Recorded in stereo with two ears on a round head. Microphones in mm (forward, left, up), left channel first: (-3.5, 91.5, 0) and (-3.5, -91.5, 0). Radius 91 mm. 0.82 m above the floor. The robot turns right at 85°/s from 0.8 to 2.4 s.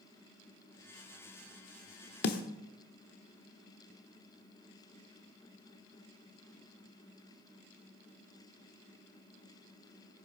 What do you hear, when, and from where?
2.2 s a snare drum: 55° left (ahead or behind), 1.0 m; by 2.4 s 40° left (ahead or behind), 1.0 m